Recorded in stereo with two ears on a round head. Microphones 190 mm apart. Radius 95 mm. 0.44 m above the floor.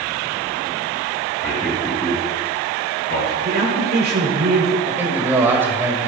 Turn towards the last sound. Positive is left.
turn(degrees=-10)  # may be behind; listen again after turning